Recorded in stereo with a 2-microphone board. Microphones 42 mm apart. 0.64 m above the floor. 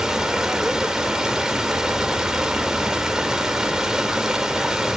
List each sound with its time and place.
0.0 s running water: 15° right (ahead or behind), 1.3 m